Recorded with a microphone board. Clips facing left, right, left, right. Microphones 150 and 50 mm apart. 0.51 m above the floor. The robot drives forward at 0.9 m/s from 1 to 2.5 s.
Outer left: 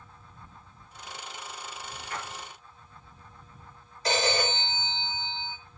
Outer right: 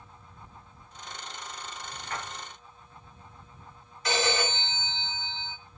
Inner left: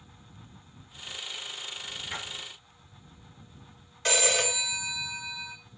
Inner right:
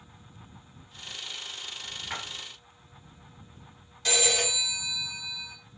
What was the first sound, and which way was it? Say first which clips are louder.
A splash: outer right 1 dB, inner right 2 dB; 60° right (ahead or behind).